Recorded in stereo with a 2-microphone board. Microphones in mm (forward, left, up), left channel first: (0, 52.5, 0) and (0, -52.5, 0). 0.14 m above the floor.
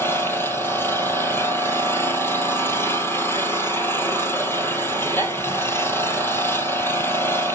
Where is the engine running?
25° left (ahead or behind), 1.9 m.